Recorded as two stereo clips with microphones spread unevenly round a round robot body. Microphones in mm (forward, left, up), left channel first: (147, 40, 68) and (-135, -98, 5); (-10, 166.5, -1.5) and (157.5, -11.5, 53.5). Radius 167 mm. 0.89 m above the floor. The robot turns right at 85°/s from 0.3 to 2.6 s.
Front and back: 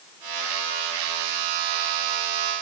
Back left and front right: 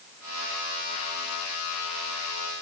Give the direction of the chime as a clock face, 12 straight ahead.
I don't hear a chime.